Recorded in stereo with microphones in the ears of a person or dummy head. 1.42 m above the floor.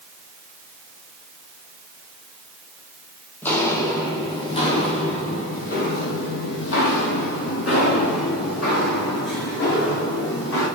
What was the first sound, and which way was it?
Footsteps, 10° left (ahead or behind).